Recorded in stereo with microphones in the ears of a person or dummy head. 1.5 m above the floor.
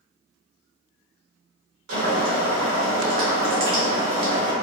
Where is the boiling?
60° right (ahead or behind), 1.1 m.